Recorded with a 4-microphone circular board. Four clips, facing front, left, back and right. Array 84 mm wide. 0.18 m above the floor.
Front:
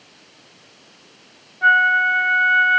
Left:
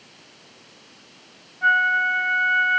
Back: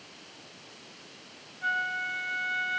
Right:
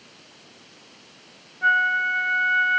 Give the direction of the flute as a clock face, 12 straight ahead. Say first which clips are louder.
Left 2 dB, front 16 dB; 12 o'clock.